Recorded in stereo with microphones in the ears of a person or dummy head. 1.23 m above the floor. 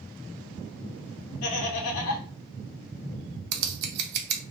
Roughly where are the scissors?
Right.